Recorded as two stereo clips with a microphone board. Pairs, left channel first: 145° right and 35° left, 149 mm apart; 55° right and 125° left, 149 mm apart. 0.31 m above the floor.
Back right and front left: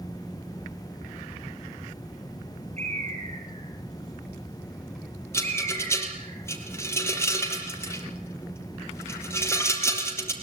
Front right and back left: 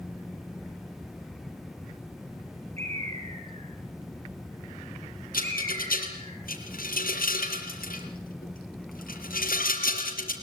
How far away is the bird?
About 5.5 m.